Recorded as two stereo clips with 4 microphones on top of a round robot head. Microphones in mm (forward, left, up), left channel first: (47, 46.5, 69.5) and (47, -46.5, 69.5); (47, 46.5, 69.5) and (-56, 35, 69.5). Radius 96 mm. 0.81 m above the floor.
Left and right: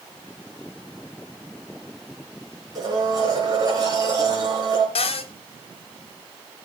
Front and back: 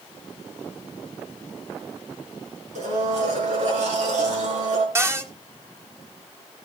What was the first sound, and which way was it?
A blender, 150° right.